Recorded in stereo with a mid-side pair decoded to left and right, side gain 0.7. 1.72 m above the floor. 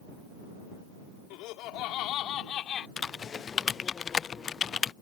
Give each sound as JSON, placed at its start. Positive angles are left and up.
{"t": 1.3, "sound": "laughter", "azimuth_deg": 65}
{"t": 3.0, "sound": "typing on a keyboard", "azimuth_deg": 30}